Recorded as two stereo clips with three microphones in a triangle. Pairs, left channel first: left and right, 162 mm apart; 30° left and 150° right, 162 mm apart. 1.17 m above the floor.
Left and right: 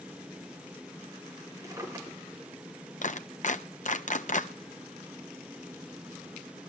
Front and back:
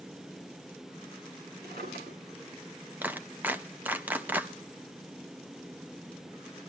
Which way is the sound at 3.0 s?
130° left.